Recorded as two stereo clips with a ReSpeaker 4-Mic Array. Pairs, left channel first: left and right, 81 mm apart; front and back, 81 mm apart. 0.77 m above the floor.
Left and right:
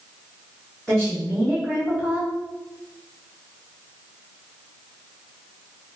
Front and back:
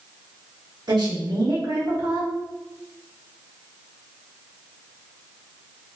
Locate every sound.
0.9 s a woman speaking: 170° left, 1.9 m